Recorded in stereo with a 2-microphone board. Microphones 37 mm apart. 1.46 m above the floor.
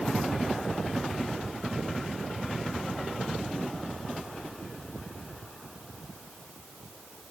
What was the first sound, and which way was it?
Only background noise.